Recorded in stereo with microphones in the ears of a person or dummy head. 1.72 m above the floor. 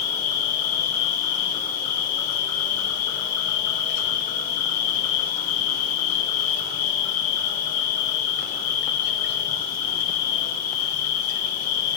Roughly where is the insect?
Left.